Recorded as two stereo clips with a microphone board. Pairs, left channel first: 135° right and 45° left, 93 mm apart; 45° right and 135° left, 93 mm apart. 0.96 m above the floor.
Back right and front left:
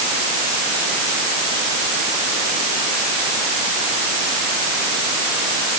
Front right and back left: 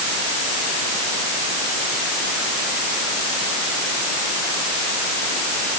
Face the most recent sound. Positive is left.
No sound to turn to.